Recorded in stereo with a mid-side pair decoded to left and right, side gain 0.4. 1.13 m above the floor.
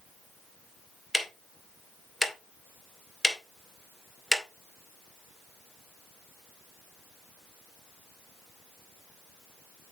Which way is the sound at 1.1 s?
10° left.